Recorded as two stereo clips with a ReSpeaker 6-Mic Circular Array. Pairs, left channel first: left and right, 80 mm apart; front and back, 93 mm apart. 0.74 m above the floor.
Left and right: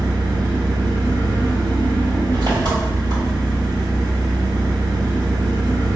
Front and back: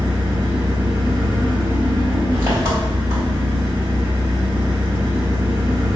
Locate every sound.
0.0 s an engine running: 125° right, 2 m